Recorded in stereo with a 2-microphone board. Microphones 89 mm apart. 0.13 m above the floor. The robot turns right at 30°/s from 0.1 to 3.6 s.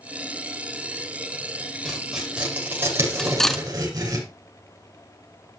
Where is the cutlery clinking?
10° left (ahead or behind), 0.8 m; by 3.6 s 5° left (ahead or behind), 0.8 m.